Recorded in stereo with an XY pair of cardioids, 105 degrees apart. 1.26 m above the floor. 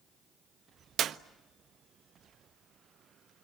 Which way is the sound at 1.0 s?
65° right.